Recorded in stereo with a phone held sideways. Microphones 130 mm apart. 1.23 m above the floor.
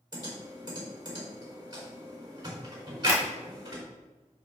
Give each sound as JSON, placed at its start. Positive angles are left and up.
{"t": 0.1, "sound": "typing on a keyboard", "side_deg": -30, "distance_m": 3.5}
{"t": 3.1, "sound": "tapping", "side_deg": 60, "distance_m": 2.5}